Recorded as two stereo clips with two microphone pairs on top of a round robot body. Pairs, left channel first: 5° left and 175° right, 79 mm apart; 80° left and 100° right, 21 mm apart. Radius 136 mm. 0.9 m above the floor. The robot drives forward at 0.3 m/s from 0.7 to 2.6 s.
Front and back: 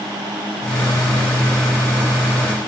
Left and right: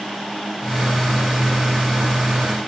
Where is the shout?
I don't hear a shout.